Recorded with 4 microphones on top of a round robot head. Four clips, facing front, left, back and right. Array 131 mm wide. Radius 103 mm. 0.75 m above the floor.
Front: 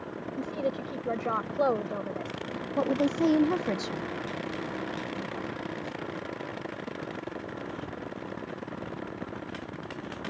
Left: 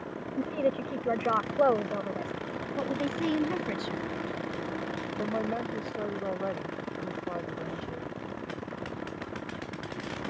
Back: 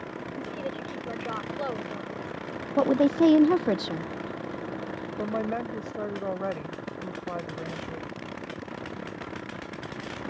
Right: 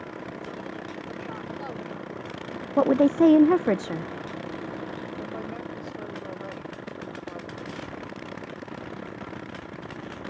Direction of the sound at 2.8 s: 110° right.